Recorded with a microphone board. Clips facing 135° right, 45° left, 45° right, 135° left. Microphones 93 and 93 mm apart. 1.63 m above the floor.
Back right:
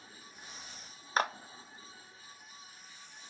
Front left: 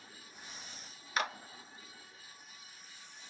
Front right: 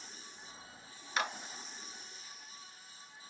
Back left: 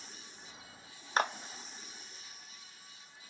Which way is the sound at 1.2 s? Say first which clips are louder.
Back right 4 dB, back left 5 dB; straight behind.